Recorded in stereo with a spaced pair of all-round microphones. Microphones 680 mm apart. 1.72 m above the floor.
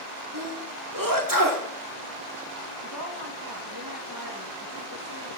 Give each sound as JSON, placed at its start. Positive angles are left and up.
{"t": 0.3, "sound": "a sneeze", "side_deg": -30, "distance_m": 4.0}
{"t": 2.8, "sound": "a woman speaking", "side_deg": -35, "distance_m": 3.0}